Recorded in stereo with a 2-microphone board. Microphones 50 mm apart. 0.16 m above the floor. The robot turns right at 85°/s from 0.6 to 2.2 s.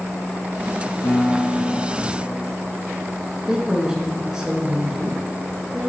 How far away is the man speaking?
About 2.5 m.